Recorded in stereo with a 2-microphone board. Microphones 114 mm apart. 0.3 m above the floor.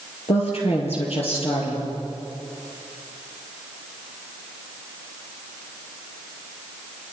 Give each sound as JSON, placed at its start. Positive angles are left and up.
{"t": 0.3, "sound": "a woman speaking", "side_deg": 65, "distance_m": 7.5}